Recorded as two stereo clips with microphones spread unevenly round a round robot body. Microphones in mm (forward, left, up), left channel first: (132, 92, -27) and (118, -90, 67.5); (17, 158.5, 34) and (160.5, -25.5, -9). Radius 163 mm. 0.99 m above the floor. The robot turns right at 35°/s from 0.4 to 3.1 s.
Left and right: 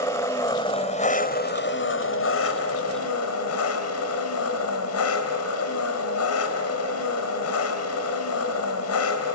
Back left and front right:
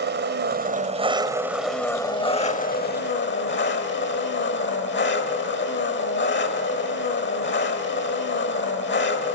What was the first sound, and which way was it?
An engine running, straight ahead.